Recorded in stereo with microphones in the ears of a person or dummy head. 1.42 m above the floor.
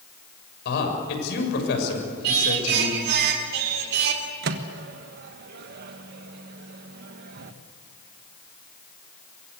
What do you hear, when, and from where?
0.7 s a man speaking: 65° left (ahead or behind), 7 m
2.2 s singing: 60° right (ahead or behind), 3 m
4.4 s a microwave: 65° right (ahead or behind), 1.4 m